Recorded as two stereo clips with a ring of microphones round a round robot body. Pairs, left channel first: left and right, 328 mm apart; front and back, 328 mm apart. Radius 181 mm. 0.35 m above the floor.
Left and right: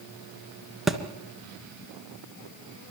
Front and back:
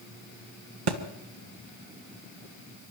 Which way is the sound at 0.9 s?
Straight behind.